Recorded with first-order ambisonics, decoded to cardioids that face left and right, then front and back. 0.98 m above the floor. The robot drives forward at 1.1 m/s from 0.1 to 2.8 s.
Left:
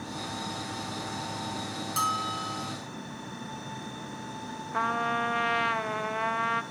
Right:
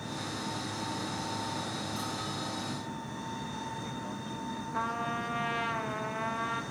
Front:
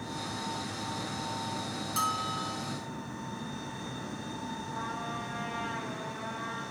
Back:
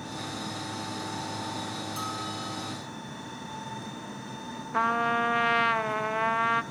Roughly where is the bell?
Ahead left.